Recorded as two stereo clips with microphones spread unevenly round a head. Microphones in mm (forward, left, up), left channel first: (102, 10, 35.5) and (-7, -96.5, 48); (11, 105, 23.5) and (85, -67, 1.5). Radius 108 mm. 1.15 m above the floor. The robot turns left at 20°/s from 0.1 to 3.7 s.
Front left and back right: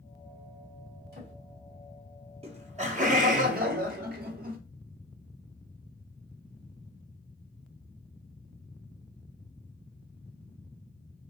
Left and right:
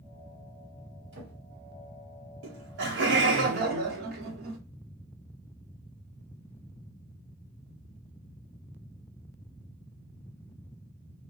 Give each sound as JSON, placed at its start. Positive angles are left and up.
{"t": 1.1, "sound": "a drawer", "azimuth_deg": -115, "distance_m": 1.6}
{"t": 2.4, "sound": "laughter", "azimuth_deg": -80, "distance_m": 1.0}